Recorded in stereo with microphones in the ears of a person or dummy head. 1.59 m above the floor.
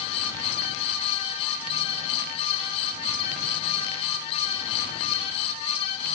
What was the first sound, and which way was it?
Only background noise.